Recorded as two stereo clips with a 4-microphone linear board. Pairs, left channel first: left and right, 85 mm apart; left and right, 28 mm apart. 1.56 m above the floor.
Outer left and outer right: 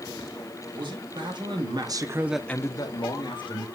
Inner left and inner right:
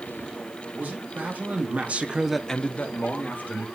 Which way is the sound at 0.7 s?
75° right (ahead or behind).